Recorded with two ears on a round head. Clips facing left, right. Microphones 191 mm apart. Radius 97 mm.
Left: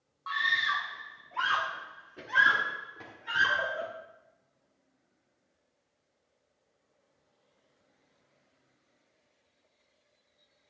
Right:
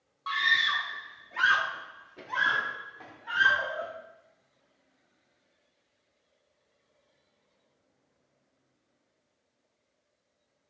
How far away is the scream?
About 1.6 m.